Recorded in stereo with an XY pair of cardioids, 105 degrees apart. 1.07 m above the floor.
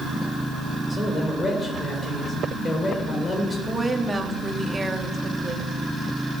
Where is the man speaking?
35° left, 4 m.